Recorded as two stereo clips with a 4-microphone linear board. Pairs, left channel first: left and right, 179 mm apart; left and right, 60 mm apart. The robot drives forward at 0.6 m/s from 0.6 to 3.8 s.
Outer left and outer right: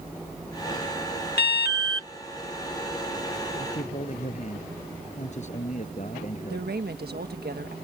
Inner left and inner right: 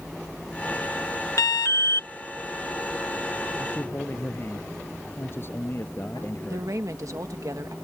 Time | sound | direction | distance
1.4 | an alarm | 75° left (ahead or behind) | ?
3.6 | a man speaking | 45° left (ahead or behind) | ?
6.5 | a woman speaking | 70° right (ahead or behind) | ?